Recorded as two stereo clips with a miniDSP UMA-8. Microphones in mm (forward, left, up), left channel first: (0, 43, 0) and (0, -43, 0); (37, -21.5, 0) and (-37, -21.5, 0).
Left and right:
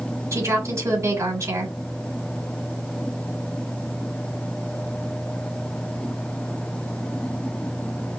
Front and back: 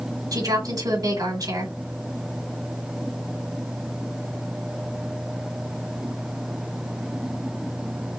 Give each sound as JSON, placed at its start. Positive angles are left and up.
{"t": 0.3, "sound": "a woman speaking", "azimuth_deg": -145, "distance_m": 2.5}